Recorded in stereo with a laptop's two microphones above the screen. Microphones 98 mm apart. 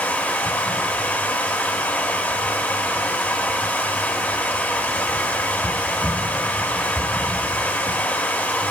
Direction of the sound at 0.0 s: 15° left (ahead or behind).